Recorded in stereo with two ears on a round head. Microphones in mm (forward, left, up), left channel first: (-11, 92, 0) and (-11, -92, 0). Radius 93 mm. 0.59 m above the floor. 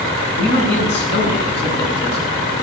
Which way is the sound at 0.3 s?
60° left (ahead or behind).